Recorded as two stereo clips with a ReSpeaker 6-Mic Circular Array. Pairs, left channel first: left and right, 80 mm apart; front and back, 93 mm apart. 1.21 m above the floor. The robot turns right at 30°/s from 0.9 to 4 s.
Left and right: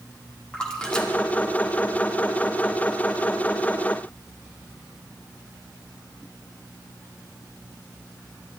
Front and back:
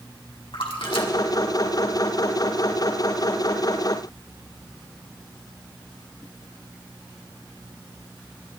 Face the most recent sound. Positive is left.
turn(degrees=105)